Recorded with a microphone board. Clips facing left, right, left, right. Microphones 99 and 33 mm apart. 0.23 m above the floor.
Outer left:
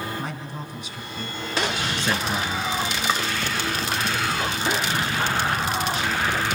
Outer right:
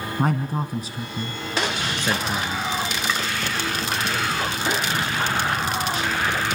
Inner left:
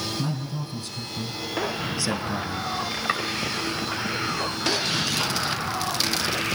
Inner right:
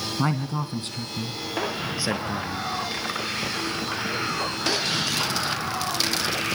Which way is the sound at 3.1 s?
30° left (ahead or behind).